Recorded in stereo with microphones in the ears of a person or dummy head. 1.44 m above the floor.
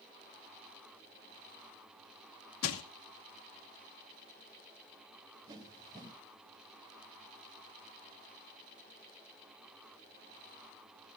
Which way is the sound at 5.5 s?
25° right (ahead or behind).